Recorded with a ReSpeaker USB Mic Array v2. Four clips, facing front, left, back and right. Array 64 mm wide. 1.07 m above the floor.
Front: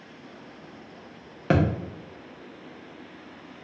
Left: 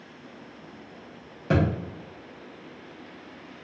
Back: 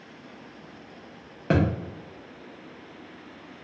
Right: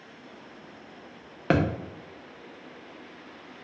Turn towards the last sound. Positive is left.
turn(degrees=-75)